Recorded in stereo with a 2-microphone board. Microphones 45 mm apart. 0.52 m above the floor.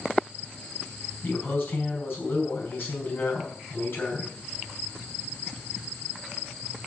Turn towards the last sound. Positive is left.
turn(degrees=45)  # may be behind; listen again after turning